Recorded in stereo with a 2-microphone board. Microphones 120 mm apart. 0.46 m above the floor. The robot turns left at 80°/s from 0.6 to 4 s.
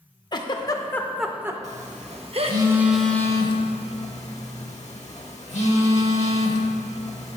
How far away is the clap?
I don't hear a clap.